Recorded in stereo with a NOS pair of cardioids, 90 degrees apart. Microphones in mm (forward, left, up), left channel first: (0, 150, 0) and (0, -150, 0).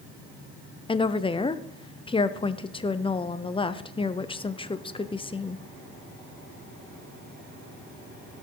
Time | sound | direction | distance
0.9 | a woman speaking | 15° left | 0.8 m